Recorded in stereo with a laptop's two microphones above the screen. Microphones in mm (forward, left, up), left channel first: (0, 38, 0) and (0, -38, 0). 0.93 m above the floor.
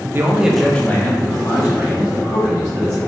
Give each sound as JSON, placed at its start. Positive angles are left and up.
{"t": 0.1, "sound": "a man speaking", "side_deg": -30, "distance_m": 0.5}